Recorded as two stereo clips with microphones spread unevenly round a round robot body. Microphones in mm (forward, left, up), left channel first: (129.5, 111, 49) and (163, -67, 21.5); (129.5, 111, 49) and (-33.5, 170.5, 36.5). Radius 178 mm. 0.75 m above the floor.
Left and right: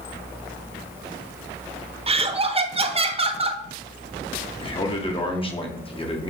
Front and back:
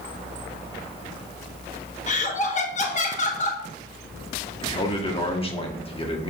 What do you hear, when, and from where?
2.1 s laughter: 50° right, 1.3 m
4.6 s a man speaking: 40° left, 2 m